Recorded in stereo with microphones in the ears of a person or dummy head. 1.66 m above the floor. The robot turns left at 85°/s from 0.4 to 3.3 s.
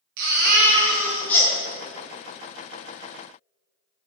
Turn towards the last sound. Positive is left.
turn(degrees=5)